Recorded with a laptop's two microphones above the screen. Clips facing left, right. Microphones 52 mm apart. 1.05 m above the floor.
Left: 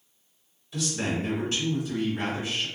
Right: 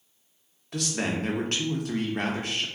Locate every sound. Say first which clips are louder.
0.7 s a man speaking: even; 60° right (ahead or behind), 1.0 m